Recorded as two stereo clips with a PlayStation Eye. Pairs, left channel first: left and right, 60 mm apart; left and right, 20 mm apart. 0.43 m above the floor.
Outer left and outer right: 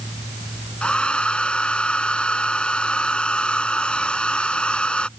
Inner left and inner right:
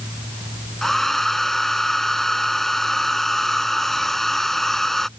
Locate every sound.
0.8 s a hair dryer: 15° left (ahead or behind)